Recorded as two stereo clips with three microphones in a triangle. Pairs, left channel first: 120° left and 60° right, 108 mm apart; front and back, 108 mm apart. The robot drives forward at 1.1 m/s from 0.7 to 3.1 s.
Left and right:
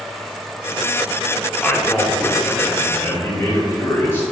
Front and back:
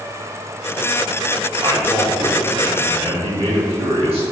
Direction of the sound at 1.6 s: 160° right.